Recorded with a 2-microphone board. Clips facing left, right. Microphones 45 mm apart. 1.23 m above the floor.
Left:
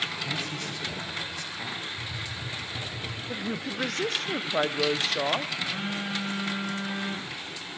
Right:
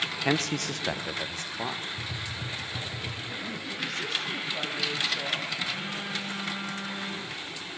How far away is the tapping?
About 1.5 m.